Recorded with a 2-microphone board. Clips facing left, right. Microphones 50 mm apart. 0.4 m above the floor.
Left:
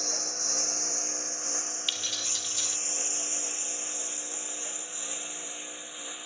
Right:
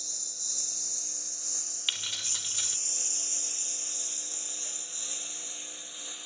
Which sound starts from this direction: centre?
Keys jangling, at 1.9 s.